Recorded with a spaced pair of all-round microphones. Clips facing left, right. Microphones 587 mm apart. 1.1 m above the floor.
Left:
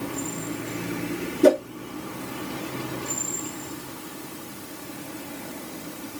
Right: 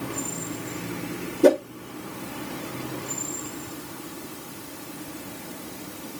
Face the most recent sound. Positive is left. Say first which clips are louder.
# even
turn(degrees=5)  # may be behind; listen again after turning